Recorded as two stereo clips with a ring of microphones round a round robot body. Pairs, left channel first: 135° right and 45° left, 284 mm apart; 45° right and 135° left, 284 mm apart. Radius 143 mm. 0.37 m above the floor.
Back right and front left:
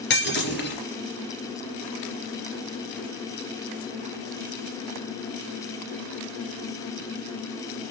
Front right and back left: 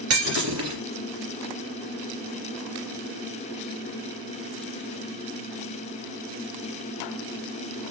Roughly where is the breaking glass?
Behind.